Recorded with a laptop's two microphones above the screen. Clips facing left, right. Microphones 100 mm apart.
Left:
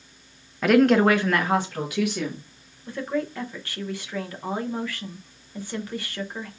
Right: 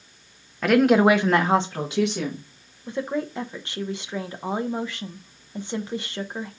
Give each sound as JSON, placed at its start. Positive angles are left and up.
{"t": 0.6, "sound": "a woman speaking", "side_deg": 0, "distance_m": 0.6}
{"t": 2.9, "sound": "a woman speaking", "side_deg": -20, "distance_m": 0.6}